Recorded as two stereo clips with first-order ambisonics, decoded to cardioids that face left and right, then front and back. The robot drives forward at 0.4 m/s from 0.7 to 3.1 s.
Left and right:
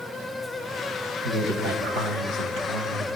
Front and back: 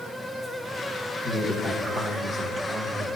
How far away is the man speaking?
About 1.7 m.